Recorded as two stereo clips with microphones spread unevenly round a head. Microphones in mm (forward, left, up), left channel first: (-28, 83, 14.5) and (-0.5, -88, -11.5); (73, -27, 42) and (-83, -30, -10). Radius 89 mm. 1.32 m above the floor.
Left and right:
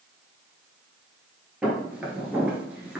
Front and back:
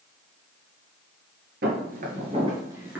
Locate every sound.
1.6 s footsteps: 175° right, 1.6 m; by 3.0 s 15° left, 1.3 m